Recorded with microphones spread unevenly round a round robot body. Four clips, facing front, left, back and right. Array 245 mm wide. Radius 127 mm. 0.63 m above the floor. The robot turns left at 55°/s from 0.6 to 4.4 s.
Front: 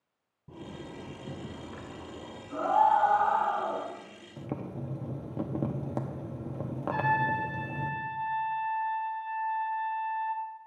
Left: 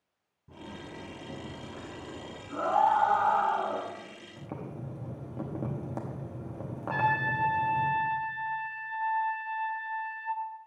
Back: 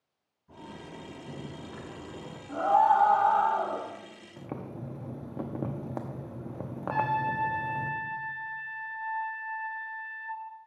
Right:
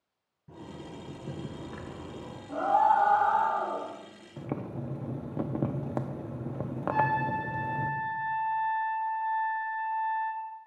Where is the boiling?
65° right, 0.9 m; by 7.9 s 70° right, 0.9 m.